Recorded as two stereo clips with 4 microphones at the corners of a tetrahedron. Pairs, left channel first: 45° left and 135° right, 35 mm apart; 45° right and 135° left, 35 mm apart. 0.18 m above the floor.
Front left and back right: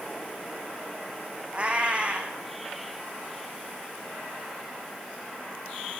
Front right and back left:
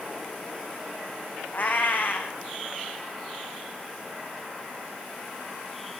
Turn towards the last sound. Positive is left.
turn(degrees=-80)